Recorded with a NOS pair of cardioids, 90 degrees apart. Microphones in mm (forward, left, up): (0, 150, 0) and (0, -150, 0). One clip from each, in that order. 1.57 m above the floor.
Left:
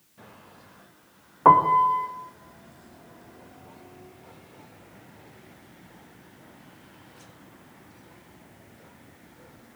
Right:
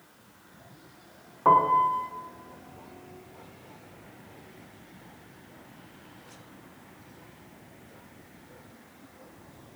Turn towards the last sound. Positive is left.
turn(degrees=45)